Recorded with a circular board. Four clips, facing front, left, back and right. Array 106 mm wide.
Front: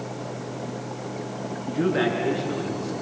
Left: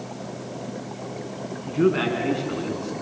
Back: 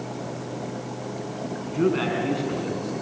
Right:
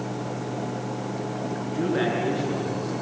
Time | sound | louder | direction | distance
1.7 | a man speaking | left 5 dB, even | 120° left | 6.5 m